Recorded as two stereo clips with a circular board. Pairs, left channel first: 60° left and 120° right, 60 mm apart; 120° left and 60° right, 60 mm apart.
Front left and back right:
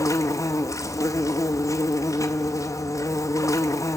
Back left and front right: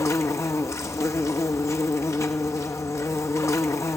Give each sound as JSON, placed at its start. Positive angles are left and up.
{"t": 0.0, "sound": "an insect", "azimuth_deg": 90, "distance_m": 0.8}